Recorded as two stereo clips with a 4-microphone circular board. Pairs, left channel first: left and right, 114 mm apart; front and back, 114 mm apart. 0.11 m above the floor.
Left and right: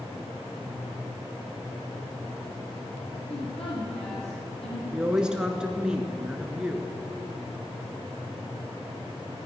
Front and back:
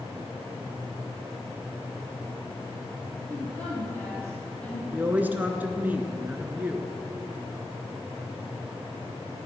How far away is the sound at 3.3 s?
About 3.5 m.